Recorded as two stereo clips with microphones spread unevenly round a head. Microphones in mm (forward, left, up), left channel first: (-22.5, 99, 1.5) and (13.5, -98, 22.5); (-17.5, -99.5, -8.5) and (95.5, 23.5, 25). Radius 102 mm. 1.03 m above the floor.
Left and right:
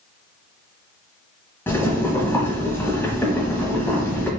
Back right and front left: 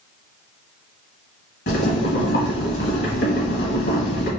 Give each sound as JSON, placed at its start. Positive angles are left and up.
{"t": 1.7, "sound": "boiling", "azimuth_deg": -175, "distance_m": 1.5}